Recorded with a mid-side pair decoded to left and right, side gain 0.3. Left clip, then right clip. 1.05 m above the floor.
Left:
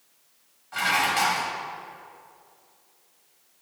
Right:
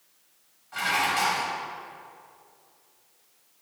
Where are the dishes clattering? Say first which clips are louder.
Left 2 dB; 30° left, 4 m.